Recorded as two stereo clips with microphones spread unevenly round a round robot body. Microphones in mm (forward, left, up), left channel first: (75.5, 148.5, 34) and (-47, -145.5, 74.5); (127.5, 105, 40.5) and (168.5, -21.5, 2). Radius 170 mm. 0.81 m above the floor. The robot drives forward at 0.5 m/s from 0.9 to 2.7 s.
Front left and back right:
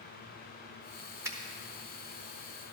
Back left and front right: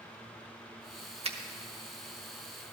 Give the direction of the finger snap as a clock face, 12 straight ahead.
1 o'clock.